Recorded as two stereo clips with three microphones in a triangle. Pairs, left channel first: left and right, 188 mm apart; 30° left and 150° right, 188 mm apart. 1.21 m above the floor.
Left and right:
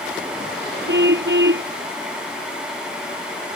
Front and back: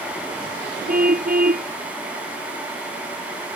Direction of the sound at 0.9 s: 110° right.